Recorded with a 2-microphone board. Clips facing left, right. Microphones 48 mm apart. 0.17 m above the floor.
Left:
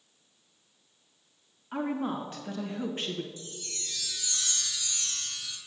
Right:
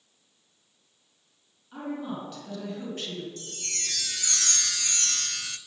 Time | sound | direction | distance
1.7 | a woman speaking | 45° left (ahead or behind) | 1.6 m
3.4 | a chime | 65° right (ahead or behind) | 0.5 m